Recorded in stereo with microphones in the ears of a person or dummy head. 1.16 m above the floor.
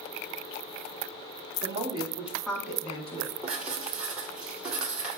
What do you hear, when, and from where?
1.6 s a woman speaking: 40° right (ahead or behind), 2.0 m; by 3.3 s 40° left (ahead or behind), 2 m
3.4 s writing: 5° right (ahead or behind), 2 m